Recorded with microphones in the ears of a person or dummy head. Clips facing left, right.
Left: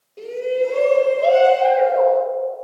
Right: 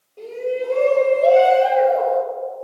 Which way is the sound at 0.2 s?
25° left (ahead or behind).